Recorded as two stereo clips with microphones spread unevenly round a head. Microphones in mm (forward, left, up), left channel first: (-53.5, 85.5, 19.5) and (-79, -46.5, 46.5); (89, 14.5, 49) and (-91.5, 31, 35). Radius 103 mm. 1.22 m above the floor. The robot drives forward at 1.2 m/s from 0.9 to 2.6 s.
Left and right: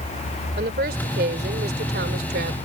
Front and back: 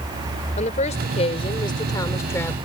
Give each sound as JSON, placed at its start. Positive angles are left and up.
{"t": 0.6, "sound": "a woman speaking", "azimuth_deg": -60}